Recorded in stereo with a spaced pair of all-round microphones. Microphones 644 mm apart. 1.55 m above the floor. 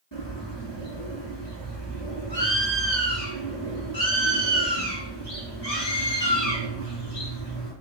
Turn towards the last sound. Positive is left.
turn(degrees=45)  # may be behind; listen again after turning